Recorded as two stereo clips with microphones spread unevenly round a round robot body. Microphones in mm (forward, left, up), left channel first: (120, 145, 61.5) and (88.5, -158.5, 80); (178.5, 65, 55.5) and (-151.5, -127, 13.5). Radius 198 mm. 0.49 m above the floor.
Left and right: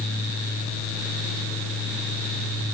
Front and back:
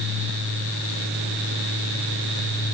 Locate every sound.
Only background noise.